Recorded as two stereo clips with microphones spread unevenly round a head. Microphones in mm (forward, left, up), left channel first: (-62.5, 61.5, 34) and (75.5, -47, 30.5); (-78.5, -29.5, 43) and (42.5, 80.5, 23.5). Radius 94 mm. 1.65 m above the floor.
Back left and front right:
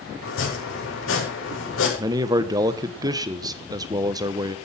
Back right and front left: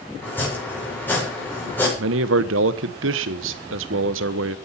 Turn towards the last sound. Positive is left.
turn(degrees=30)